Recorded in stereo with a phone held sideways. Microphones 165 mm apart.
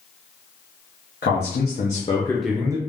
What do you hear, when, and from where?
1.2 s a man speaking: 80° left, 0.9 m; by 2.8 s 20° right (ahead or behind), 0.7 m